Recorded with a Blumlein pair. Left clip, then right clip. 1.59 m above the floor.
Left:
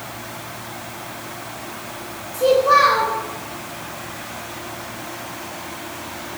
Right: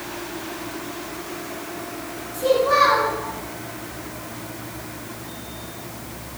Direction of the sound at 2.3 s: 20° left.